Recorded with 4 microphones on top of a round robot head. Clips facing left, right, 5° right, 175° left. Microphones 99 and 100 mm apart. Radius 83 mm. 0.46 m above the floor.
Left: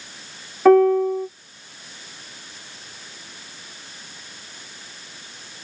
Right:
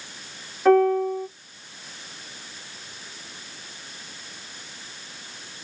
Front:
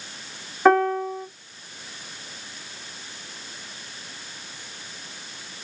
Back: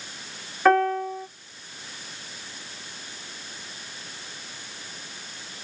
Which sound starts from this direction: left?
A piano, at 0.7 s.